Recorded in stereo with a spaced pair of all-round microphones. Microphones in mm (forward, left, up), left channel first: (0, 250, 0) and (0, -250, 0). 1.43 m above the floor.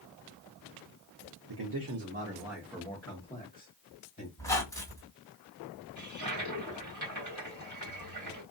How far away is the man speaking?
About 0.7 m.